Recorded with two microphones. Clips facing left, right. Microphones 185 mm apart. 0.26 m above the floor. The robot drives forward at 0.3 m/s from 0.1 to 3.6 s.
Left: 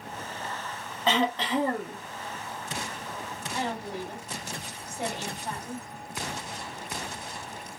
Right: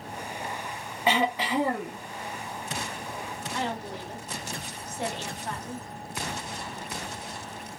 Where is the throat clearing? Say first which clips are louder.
Even; 10° right (ahead or behind), 0.9 m.